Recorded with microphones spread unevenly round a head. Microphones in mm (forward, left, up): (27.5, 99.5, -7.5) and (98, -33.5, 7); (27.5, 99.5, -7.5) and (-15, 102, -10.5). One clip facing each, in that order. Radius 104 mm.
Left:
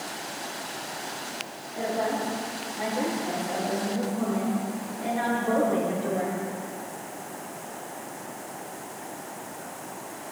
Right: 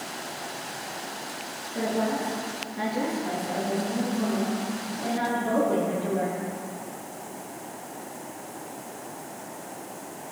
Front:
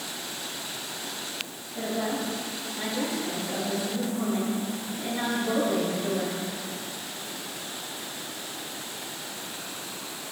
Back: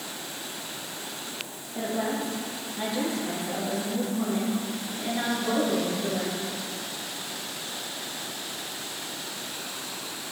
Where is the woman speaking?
110° right, 2.0 m; by 6.4 s 100° right, 5 m.